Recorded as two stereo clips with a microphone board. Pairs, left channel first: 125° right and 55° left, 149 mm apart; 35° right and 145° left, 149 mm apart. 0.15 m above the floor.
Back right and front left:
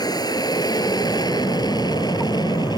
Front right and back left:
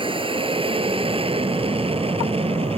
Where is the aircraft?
Straight behind.